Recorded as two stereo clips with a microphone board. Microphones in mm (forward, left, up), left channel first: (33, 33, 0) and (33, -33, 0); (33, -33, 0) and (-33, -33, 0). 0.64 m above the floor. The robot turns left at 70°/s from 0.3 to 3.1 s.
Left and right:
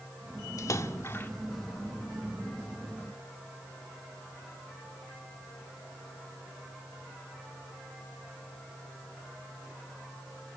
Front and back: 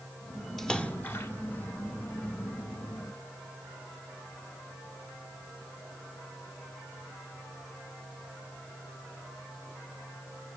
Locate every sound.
0.6 s a splash: 85° left, 1.6 m; by 1.3 s 35° left, 1.6 m